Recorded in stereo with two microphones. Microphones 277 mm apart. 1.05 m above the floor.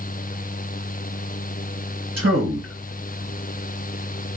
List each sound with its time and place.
2.2 s a man speaking: 50° right (ahead or behind), 1.3 m